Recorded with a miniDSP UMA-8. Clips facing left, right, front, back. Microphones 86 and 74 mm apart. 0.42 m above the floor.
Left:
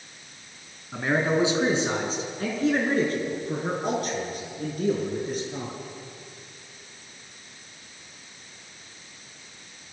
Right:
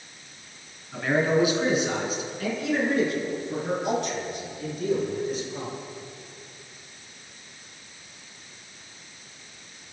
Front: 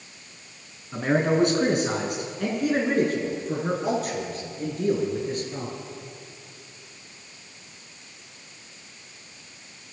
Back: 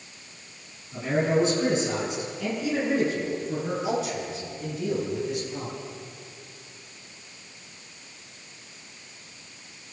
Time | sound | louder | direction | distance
0.9 | a man speaking | right 1 dB, front 2 dB | 25° left | 5 m